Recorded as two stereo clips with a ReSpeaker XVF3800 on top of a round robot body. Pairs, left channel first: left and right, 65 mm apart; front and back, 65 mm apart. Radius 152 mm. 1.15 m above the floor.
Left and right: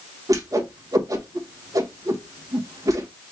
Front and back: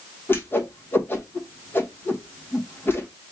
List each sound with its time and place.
0.3 s a whoosh: 55° right, 1.2 m